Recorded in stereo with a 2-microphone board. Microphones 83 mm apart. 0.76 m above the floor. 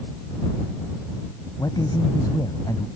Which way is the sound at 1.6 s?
50° left (ahead or behind).